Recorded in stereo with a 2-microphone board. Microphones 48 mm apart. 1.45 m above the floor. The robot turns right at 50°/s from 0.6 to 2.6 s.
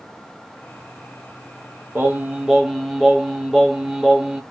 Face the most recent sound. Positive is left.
turn(degrees=-5)